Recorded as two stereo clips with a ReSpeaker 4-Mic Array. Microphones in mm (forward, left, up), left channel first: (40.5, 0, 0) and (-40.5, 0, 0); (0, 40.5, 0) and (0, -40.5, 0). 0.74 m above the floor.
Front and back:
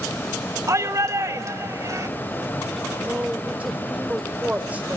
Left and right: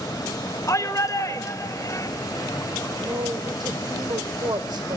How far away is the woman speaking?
About 3 m.